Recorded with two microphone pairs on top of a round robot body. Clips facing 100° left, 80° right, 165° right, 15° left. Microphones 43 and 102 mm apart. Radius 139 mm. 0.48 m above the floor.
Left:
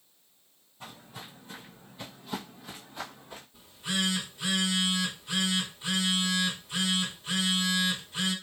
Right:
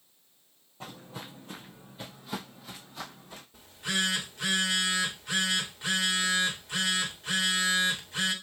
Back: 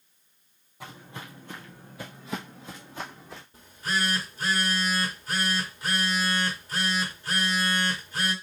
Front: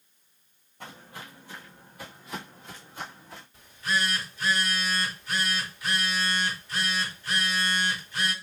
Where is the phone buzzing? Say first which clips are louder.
Right 1 dB, front 1 dB; 110° right, 1.6 m.